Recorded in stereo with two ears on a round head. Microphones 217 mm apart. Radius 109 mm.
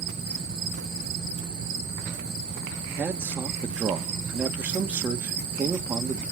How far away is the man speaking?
About 1.3 m.